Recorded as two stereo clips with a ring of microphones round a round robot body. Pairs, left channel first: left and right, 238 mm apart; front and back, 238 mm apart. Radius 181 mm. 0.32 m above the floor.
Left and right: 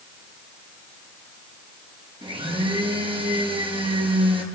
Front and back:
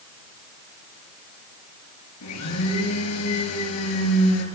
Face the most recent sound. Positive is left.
turn(degrees=-20)